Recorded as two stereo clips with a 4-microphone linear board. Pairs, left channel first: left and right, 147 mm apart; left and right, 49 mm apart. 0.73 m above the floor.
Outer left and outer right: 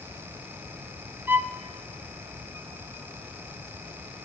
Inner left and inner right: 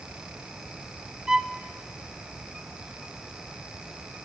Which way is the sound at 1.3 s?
15° right (ahead or behind).